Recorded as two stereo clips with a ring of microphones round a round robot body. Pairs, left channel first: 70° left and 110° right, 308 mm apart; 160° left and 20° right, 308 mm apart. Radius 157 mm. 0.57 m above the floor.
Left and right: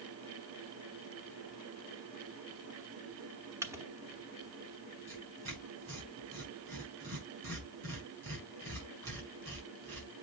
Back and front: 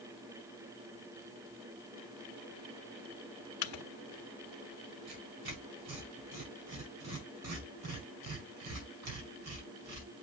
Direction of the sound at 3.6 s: 170° left.